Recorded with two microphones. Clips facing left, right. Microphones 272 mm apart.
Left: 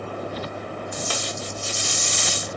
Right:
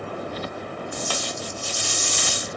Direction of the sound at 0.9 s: 25° left (ahead or behind).